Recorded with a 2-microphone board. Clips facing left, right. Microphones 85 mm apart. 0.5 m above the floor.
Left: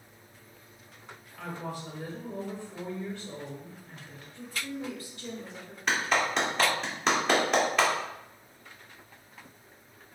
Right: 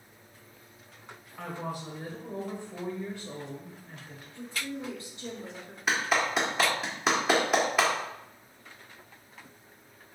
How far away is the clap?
About 1.2 m.